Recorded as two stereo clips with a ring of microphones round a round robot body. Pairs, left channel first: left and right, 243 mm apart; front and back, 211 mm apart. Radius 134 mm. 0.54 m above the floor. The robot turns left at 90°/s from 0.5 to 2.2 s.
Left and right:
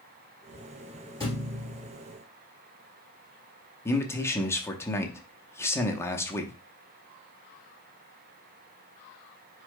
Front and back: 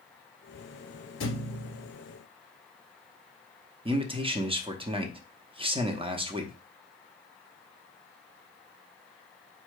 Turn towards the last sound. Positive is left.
turn(degrees=155)